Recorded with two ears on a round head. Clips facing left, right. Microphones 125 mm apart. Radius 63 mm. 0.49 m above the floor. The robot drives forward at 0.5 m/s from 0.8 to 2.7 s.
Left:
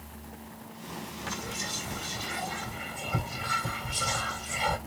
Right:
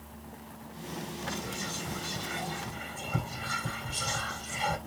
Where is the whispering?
20° left (ahead or behind), 1.7 m; by 4.8 s 15° left (ahead or behind), 2 m.